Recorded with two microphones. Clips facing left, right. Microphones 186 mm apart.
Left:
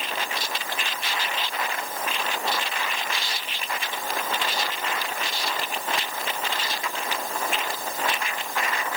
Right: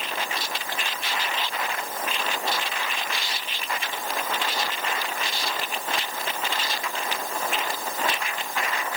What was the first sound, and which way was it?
Only background noise.